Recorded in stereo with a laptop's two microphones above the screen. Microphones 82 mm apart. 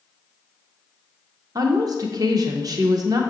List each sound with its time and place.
1.6 s a woman speaking: 50° right (ahead or behind), 0.6 m